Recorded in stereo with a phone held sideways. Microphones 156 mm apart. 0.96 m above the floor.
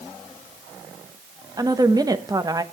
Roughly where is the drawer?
No drawer in this recording.